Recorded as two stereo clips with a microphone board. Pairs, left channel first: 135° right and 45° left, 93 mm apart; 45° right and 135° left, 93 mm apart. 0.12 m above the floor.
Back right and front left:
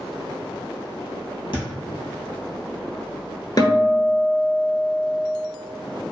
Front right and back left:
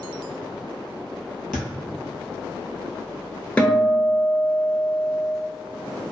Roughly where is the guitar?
Behind right.